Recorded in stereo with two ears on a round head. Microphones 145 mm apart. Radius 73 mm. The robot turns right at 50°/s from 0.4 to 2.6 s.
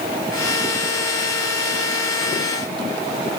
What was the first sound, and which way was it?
Only background noise.